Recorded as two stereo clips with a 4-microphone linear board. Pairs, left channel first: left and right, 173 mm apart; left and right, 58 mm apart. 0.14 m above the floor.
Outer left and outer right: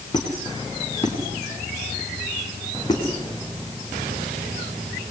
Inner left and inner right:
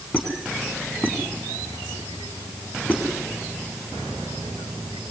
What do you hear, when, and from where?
0.1 s a squeak: 25° left (ahead or behind), 5 m